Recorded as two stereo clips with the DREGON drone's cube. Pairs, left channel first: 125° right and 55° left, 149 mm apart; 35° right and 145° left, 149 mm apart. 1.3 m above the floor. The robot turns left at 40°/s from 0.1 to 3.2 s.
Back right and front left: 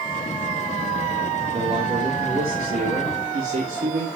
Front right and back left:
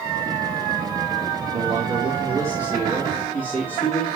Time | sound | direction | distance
1.5 | a man speaking | 110° left | 3.5 m